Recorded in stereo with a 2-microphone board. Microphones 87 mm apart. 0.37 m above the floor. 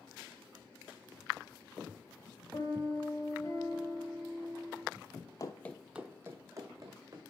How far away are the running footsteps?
About 0.5 m.